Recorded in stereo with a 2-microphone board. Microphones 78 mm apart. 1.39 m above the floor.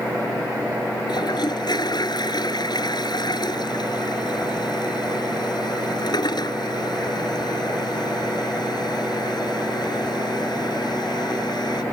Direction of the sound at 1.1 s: 65° left (ahead or behind).